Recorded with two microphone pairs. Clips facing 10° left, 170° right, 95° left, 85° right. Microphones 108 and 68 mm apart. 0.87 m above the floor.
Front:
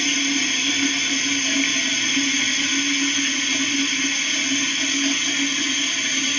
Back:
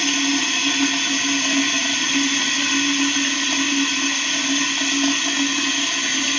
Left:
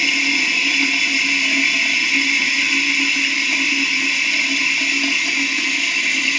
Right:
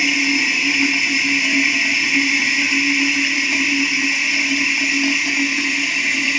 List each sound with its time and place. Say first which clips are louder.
0.0 s running water: back 3 dB, right 1 dB; 160° right, 4.5 m